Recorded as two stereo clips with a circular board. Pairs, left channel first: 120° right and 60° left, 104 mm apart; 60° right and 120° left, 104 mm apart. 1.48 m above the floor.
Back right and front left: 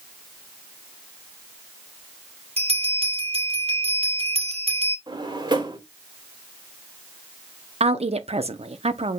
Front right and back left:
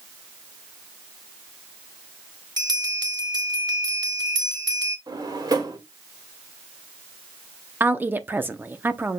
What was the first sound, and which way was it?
A bell, 70° left.